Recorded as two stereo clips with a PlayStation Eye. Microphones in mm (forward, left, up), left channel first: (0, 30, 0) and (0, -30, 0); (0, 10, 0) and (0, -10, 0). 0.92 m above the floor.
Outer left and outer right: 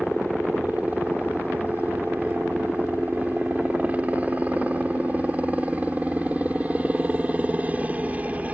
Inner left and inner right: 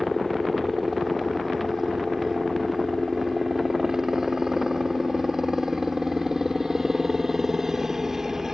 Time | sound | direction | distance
0.0 | a helicopter | 25° right (ahead or behind) | ?